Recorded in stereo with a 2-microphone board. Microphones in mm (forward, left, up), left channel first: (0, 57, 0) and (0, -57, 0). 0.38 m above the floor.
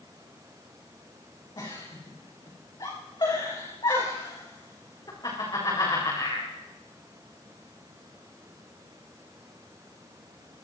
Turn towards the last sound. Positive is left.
turn(degrees=40)  # may be behind; listen again after turning